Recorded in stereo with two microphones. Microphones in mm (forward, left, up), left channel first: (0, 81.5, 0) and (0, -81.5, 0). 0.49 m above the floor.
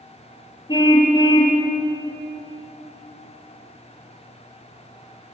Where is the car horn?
30° left (ahead or behind), 6.5 m.